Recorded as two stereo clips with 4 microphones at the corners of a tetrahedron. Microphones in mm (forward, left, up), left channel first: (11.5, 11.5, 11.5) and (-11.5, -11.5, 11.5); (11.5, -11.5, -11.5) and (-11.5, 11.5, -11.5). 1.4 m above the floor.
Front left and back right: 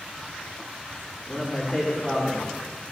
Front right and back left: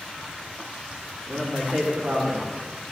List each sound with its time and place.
1.3 s a man speaking: 155° left, 2.5 m